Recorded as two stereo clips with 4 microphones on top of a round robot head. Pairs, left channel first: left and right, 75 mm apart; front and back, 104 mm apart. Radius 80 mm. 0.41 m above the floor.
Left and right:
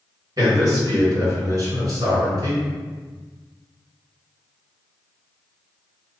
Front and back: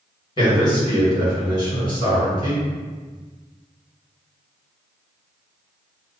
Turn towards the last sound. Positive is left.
turn(degrees=-45)